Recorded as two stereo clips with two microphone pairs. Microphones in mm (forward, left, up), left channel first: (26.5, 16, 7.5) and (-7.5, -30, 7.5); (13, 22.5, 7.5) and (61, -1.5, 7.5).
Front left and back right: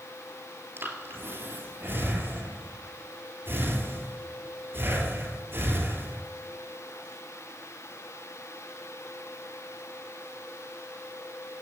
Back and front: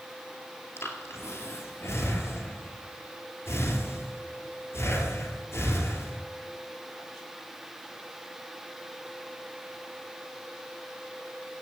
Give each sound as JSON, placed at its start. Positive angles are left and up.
{"t": 0.8, "sound": "breathing", "azimuth_deg": -170, "distance_m": 2.5}